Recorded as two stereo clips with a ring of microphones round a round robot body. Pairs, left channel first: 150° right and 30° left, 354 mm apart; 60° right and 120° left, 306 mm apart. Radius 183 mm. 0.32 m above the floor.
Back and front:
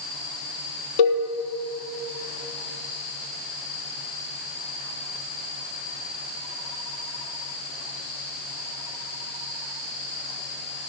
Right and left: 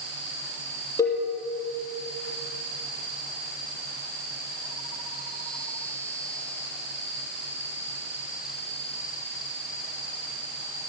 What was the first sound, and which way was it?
A cowbell, 145° right.